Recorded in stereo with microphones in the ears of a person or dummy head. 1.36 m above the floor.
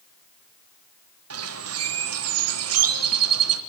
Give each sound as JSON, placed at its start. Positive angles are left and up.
{"t": 1.3, "sound": "a bird", "side_deg": -85, "distance_m": 1.0}